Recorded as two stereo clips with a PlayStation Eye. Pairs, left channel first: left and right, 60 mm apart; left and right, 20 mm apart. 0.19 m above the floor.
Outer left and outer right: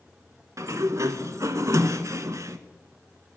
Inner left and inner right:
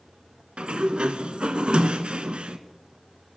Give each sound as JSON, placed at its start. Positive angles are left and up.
{"t": 0.6, "sound": "a sliding door", "side_deg": -55, "distance_m": 0.6}